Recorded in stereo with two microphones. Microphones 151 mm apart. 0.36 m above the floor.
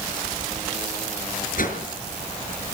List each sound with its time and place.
1.6 s a whoosh: 65° left (ahead or behind), 5.5 m